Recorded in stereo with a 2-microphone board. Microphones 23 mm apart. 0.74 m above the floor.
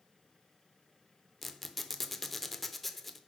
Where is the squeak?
5° left (ahead or behind), 0.6 m.